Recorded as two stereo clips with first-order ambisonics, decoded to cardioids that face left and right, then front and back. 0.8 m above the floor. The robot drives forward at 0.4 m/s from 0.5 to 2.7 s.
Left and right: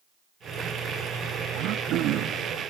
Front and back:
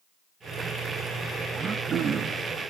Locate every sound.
1.5 s throat clearing: 115° right, 1.0 m; by 2.5 s 130° right, 1.1 m